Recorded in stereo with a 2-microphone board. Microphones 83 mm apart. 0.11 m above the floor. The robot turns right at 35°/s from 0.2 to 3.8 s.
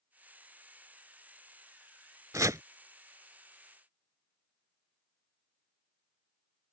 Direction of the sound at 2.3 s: 45° right (ahead or behind).